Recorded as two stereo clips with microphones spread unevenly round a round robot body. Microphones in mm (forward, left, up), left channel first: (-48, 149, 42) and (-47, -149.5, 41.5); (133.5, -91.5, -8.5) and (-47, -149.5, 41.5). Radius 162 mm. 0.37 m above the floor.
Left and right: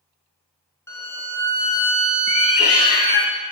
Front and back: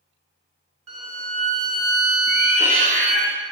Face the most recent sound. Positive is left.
turn(degrees=135)